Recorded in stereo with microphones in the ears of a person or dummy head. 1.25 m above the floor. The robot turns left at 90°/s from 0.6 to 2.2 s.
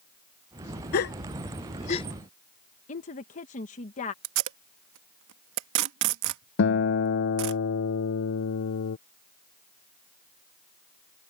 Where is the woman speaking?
35° left (ahead or behind).